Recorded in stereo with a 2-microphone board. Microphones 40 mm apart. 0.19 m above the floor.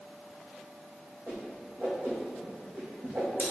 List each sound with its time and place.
1.3 s a whoosh: 40° right (ahead or behind), 2 m